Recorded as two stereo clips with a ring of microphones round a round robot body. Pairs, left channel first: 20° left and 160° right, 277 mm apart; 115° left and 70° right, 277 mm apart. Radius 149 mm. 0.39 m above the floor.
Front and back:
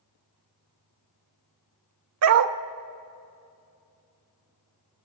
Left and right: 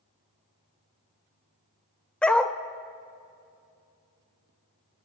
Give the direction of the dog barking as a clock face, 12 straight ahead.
5 o'clock.